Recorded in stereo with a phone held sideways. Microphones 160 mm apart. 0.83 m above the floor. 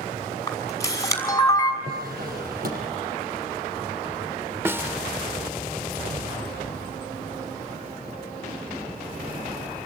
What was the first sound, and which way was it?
A camera shutter, 20° left (ahead or behind).